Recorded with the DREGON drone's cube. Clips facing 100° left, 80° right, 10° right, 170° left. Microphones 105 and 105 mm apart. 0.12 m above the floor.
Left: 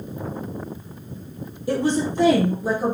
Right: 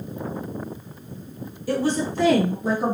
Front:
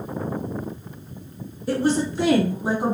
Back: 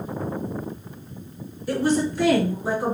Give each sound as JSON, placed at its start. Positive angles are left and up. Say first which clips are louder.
{"t": 1.7, "sound": "a woman speaking", "louder": "left 2 dB, even", "azimuth_deg": 45, "distance_m": 1.9}